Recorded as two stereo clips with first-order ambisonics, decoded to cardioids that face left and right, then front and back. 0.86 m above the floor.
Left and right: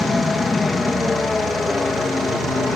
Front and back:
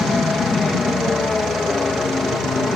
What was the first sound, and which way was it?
An aircraft, 45° left.